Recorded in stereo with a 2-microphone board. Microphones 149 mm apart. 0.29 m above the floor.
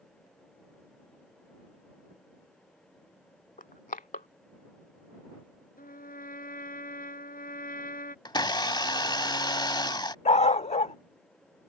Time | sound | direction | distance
3.6 | crushing | 65° left (ahead or behind) | ?
5.8 | a trumpet | 75° left (ahead or behind) | ?
8.2 | a blender | 30° left (ahead or behind) | ?
10.2 | a dog barking | 50° left (ahead or behind) | ?